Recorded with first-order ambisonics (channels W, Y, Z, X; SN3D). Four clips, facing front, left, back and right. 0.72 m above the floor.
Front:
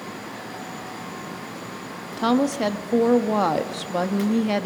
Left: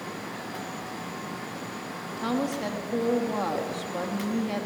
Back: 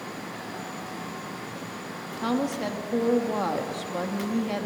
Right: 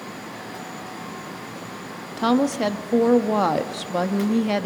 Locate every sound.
2.2 s a woman speaking: 50° right, 1.0 m